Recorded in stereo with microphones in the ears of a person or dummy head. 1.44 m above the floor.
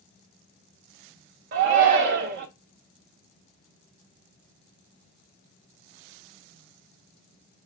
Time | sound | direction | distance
1.5 | a shout | 45° right (ahead or behind) | 0.5 m